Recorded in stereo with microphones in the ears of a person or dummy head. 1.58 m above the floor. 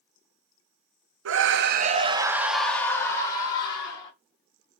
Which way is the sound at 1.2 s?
75° right (ahead or behind).